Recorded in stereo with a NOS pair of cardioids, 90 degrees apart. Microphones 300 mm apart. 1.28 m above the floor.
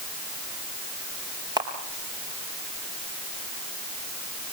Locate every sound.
1.6 s a camera shutter: 15° right, 4 m